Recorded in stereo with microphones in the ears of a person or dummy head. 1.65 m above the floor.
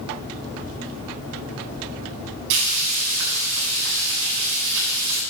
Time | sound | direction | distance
2.5 | frying | 75° right (ahead or behind) | 9.5 m